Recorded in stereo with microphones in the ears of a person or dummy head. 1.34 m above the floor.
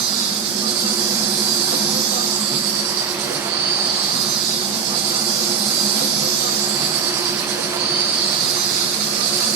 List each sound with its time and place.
0.0 s an insect: 25° right (ahead or behind), 0.7 m